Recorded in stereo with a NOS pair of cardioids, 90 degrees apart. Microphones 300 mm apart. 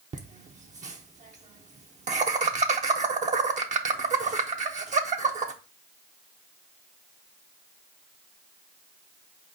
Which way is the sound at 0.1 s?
25° right.